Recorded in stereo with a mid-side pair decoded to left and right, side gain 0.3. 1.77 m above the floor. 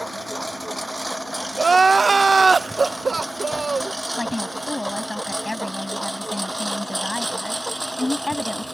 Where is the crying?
45° right.